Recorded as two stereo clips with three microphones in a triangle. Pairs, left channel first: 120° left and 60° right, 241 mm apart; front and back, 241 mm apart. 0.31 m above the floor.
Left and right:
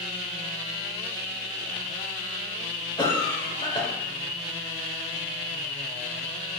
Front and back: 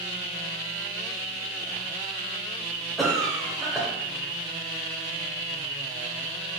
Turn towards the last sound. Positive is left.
turn(degrees=90)